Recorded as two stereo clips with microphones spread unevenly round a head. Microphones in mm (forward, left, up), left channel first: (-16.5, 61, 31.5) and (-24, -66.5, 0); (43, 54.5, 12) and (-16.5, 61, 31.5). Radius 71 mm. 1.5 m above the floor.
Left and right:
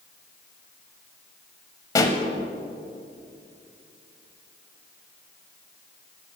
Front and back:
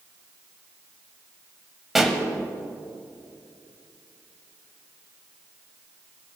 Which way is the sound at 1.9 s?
110° left.